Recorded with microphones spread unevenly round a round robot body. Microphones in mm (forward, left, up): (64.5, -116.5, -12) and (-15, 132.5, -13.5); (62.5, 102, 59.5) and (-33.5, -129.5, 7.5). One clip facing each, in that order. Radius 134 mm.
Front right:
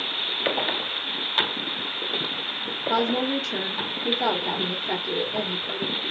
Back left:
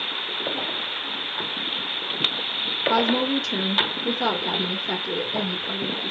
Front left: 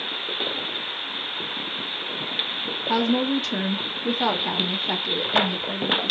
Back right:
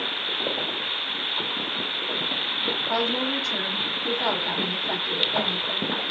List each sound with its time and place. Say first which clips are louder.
2.9 s a woman speaking: back left 2 dB, front left 7 dB; 30° left, 0.8 m